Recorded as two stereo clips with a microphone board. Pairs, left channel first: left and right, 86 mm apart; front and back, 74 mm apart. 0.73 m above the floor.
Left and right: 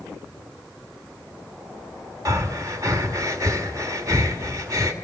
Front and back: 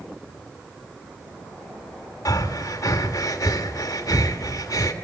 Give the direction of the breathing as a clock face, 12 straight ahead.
1 o'clock.